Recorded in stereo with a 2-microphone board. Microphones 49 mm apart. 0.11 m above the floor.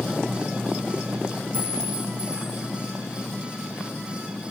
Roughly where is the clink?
Right.